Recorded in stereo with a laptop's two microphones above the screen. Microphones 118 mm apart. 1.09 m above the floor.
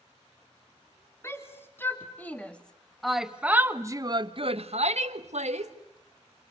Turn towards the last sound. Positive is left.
turn(degrees=-70)  # may be behind; listen again after turning